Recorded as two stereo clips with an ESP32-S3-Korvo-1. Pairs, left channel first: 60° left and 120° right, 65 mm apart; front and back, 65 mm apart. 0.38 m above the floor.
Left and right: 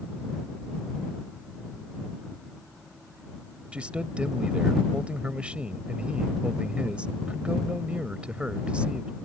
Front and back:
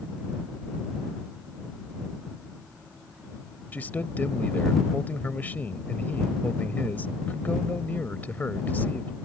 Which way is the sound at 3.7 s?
55° right.